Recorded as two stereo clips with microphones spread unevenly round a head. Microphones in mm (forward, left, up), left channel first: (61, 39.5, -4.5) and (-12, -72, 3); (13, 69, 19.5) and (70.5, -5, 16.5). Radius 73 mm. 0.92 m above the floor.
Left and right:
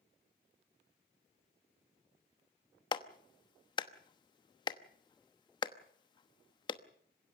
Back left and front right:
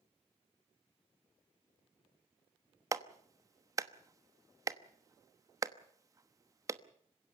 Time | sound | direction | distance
2.9 | a clap | straight ahead | 1.1 m